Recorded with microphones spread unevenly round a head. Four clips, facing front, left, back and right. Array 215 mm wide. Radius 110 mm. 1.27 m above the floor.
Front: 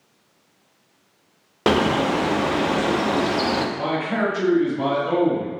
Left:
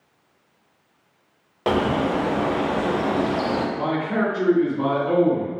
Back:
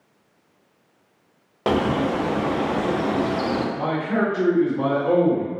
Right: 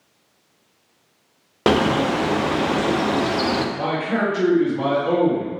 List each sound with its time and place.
1.7 s a bird: 50° right, 0.6 m
3.8 s a man speaking: 125° right, 1.7 m